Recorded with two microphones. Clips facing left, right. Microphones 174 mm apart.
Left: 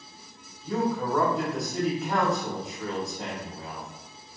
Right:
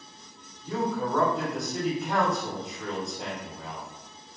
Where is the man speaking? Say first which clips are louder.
Left 2 dB; centre (ahead or behind), 1.2 m.